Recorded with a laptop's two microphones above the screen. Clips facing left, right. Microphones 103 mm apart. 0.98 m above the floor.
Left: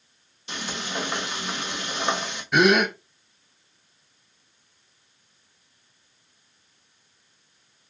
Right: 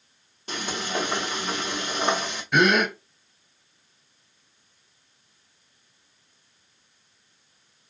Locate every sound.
0.5 s frying: 45° right (ahead or behind), 1.8 m
2.5 s a gasp: centre (ahead or behind), 1.0 m